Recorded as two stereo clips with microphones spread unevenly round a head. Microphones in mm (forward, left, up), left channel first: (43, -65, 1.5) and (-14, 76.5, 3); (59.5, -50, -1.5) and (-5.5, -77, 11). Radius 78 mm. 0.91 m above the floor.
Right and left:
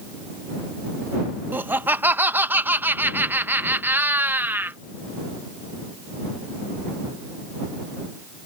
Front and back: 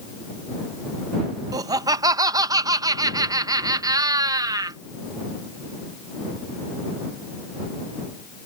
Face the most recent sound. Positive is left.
turn(degrees=-175)